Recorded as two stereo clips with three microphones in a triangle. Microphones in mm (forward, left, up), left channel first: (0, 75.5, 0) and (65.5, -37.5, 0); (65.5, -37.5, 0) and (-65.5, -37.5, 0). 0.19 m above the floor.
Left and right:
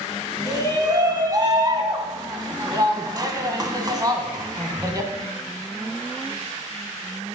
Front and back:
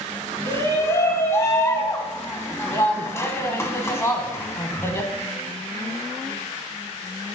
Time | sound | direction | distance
0.5 | a shout | 45° right | 1.2 m